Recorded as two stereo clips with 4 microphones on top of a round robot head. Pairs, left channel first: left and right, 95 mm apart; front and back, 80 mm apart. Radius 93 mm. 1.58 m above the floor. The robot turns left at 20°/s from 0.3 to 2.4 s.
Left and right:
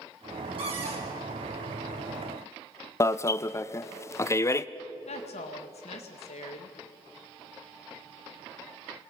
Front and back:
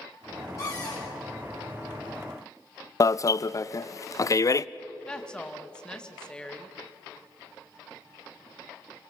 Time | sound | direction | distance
0.6 | a cupboard door | 60° right | 5.5 m
3.0 | an alarm | 35° left | 0.5 m
5.1 | a woman speaking | 80° left | 2.0 m